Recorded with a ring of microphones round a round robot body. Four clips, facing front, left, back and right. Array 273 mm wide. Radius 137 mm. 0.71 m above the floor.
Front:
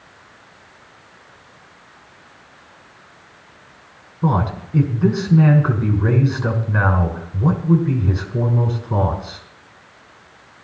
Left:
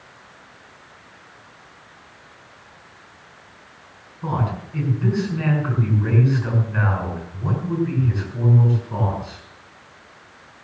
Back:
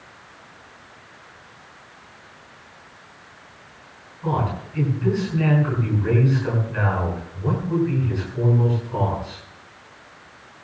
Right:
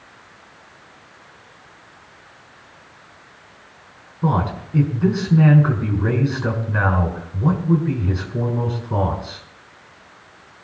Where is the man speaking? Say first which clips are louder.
Right 4 dB, front 4 dB; 30° right, 6.5 m.